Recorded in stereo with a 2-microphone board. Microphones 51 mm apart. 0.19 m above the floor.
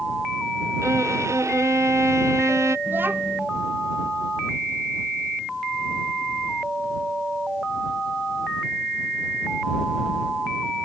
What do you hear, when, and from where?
0.8 s a violin: 70° right (ahead or behind)
2.9 s a child speaking: 45° right (ahead or behind)